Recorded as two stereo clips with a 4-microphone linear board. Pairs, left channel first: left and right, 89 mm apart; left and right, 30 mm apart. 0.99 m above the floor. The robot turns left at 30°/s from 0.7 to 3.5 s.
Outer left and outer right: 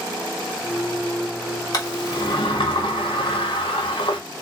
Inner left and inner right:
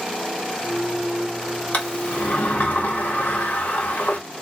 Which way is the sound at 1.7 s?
135° left.